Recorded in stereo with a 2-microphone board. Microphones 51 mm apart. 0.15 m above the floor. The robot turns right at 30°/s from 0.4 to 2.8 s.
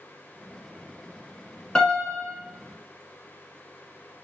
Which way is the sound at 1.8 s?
15° left (ahead or behind).